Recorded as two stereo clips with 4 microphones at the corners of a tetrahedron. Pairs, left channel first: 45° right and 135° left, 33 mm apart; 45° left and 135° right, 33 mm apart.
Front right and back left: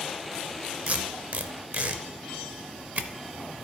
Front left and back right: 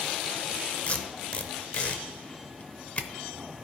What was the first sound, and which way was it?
Tape being pulled, 95° left.